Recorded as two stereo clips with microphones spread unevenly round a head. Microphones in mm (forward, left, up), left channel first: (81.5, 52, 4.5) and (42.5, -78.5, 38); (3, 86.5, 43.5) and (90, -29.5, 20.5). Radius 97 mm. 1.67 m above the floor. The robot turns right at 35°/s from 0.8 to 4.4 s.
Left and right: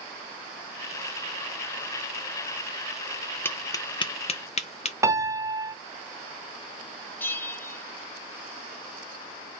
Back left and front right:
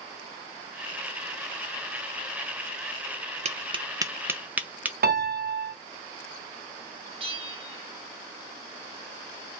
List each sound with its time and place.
3.5 s tapping: 5° right, 0.7 m; by 4.9 s 30° left, 0.7 m
5.0 s a piano: 35° right, 1.0 m
7.2 s a bell: 10° right, 0.8 m